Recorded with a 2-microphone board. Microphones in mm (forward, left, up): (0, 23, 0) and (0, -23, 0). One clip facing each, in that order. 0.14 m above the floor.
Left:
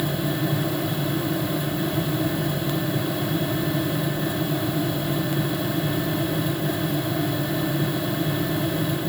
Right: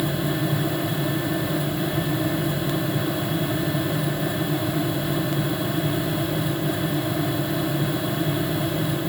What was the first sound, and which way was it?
Only background noise.